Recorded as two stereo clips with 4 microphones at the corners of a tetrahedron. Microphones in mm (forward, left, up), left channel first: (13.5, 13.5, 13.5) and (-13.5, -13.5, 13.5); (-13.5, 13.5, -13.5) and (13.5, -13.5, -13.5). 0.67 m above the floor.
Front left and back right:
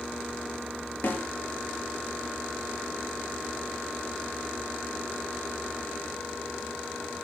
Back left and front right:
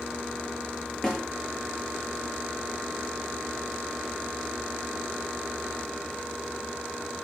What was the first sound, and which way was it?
A snare drum, 55° left.